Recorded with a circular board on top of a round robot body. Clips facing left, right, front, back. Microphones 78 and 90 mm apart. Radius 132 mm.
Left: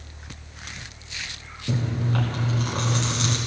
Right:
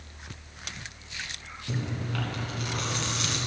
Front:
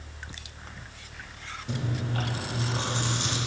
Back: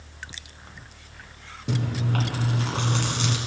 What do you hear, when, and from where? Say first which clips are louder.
1.7 s chewing: left 7 dB, back 5 dB; 150° left, 1.4 m